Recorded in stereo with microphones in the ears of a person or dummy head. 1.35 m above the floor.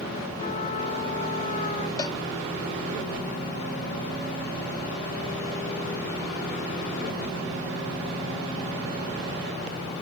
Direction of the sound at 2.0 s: 20° left (ahead or behind).